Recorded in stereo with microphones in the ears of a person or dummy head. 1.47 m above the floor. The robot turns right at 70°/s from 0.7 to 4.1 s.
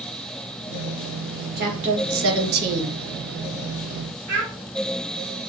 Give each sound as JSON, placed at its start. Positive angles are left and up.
{"t": 1.6, "sound": "a woman speaking", "azimuth_deg": -125, "distance_m": 0.7}
{"t": 4.3, "sound": "a child speaking", "side_deg": -50, "distance_m": 1.1}